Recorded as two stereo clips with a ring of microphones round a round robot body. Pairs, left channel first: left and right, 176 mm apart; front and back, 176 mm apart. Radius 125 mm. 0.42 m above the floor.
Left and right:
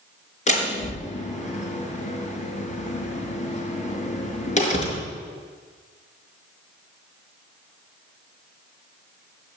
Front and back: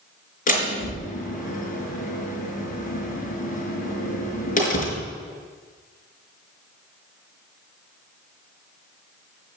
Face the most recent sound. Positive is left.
turn(degrees=40)